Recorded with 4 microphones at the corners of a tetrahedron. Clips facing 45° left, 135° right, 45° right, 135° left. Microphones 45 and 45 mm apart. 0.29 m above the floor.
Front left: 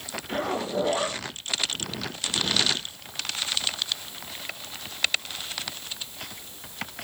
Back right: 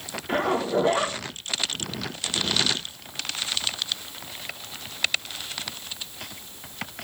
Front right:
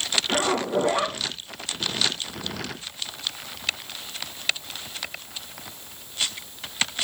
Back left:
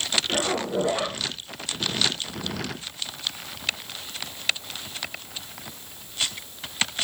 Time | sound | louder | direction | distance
0.3 | a zipper | back right 5 dB, front right 5 dB | 75° right | 2 m